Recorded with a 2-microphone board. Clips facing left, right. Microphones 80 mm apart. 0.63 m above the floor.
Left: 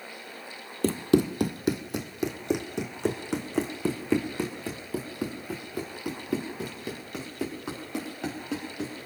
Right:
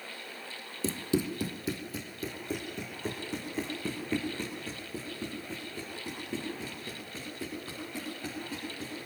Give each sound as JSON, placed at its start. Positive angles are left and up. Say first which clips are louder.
{"t": 0.8, "sound": "running footsteps", "louder": "left 8 dB", "side_deg": 60, "distance_m": 1.1}